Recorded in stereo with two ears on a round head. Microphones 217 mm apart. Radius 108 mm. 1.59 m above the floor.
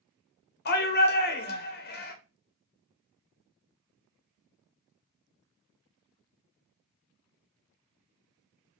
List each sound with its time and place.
0.7 s a shout: 40° left (ahead or behind), 1.1 m